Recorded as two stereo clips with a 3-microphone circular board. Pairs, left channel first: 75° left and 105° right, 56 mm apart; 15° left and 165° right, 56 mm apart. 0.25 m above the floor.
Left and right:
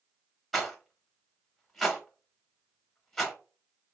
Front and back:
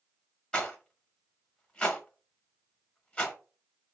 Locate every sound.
0.5 s a rattle: 10° right, 0.7 m